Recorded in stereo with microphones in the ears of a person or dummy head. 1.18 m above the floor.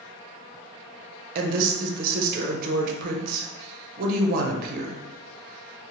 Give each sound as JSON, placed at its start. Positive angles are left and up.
{"t": 1.4, "sound": "a woman speaking", "side_deg": -50, "distance_m": 0.5}